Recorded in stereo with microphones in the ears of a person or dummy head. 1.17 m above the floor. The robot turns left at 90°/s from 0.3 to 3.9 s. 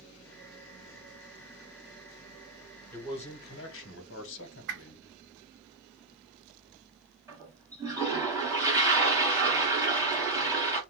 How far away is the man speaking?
About 1.1 m.